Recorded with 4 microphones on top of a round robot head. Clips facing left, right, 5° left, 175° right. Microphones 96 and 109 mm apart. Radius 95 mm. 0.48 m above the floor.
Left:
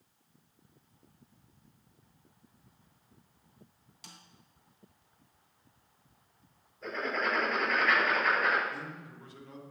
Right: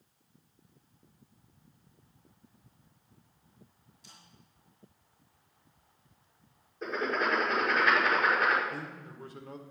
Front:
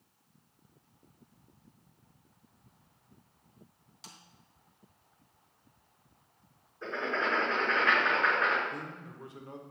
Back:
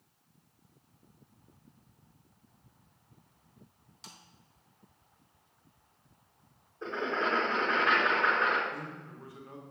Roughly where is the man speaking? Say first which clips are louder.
Right 1 dB, even; ahead right.